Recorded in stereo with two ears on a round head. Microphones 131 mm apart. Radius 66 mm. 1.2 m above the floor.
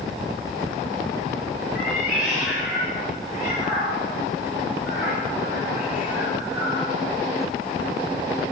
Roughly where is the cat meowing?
Centre.